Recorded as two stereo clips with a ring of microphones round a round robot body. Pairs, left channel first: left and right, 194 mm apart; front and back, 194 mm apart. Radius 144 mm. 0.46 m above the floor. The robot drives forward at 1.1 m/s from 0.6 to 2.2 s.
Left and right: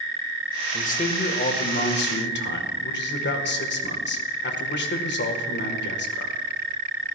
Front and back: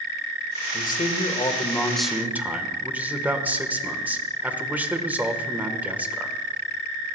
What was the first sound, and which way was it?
A man speaking, 40° left.